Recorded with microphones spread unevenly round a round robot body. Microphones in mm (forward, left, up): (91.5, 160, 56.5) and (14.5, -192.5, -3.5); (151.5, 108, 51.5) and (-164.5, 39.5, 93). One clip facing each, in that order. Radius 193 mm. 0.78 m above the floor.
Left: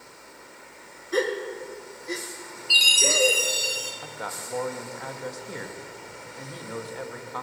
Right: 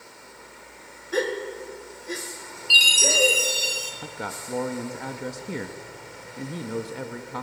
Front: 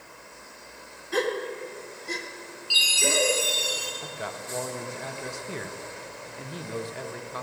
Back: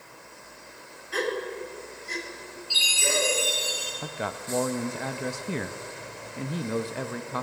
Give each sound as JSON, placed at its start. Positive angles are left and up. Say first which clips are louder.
{"t": 1.1, "sound": "a gasp", "louder": "left 1 dB, front 2 dB", "azimuth_deg": -10, "distance_m": 1.5}
{"t": 2.7, "sound": "a chime", "louder": "right 1 dB, front 2 dB", "azimuth_deg": -70, "distance_m": 2.5}
{"t": 4.0, "sound": "a man speaking", "louder": "right 2 dB, back 3 dB", "azimuth_deg": -140, "distance_m": 0.7}